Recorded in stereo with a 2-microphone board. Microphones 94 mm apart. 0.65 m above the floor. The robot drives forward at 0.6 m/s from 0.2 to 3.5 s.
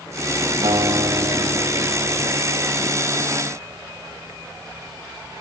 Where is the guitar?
65° right (ahead or behind), 1.5 m; by 2.3 s 60° right (ahead or behind), 1.6 m.